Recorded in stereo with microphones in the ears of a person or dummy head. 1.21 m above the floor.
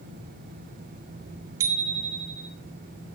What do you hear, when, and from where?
1.6 s a bicycle bell: 20° right (ahead or behind), 2.5 m